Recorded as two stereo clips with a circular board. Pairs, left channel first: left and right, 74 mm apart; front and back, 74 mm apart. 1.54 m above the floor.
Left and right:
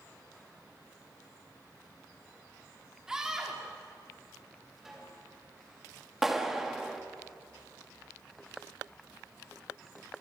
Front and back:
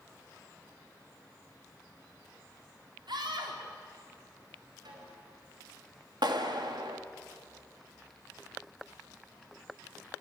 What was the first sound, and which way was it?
A scream, 175° right.